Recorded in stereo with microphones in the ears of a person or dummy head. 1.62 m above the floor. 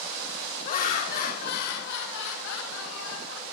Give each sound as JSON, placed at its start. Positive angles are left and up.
{"t": 0.6, "sound": "laughter", "side_deg": 40, "distance_m": 2.0}